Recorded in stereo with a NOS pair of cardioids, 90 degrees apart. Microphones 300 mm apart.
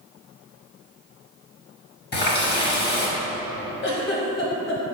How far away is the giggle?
About 1.1 m.